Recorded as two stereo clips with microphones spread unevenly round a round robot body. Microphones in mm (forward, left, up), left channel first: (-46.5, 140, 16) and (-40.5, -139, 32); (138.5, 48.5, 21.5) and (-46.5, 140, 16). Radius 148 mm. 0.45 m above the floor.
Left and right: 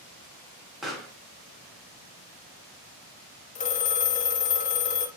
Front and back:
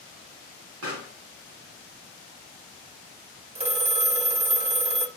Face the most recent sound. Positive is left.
turn(degrees=125)